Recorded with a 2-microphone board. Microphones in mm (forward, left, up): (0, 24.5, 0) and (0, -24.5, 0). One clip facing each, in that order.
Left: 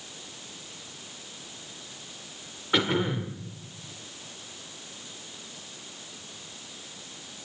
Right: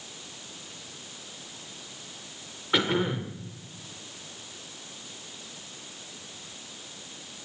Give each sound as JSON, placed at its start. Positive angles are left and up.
{"t": 2.7, "sound": "throat clearing", "side_deg": 0, "distance_m": 1.9}